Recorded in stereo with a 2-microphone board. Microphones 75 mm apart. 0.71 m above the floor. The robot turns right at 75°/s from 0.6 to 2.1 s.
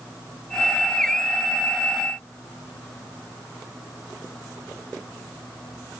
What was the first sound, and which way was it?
Only background noise.